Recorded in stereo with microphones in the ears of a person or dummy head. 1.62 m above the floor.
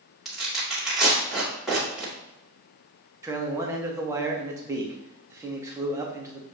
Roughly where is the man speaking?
Centre.